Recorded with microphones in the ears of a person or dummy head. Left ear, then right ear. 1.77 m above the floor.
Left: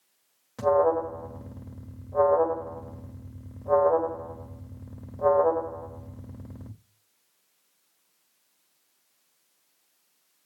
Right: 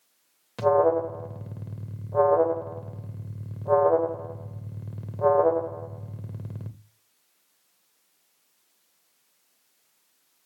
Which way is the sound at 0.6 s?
35° right (ahead or behind).